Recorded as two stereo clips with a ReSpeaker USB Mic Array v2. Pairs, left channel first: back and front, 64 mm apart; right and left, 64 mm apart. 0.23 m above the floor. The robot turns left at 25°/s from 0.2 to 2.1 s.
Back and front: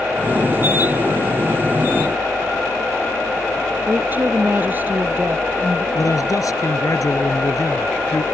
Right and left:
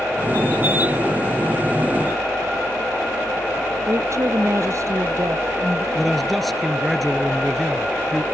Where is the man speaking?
Straight behind.